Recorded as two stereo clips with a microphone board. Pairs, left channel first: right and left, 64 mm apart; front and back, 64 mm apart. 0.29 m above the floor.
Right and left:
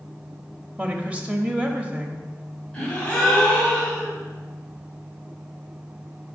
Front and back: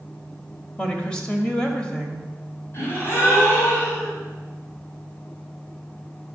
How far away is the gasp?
About 2 m.